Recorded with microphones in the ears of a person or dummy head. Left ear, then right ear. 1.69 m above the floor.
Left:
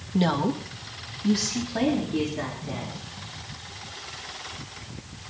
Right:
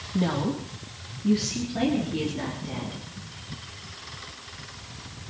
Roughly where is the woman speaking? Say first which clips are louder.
Left 3 dB; left.